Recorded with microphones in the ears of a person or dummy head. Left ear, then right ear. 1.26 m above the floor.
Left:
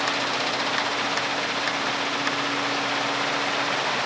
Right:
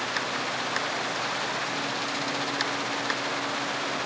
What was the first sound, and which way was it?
Only background noise.